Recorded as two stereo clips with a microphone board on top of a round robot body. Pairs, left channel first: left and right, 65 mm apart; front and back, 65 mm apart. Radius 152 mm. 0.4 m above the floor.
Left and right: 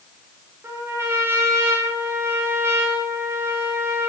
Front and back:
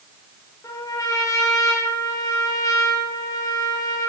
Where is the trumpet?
35° right, 7.5 m.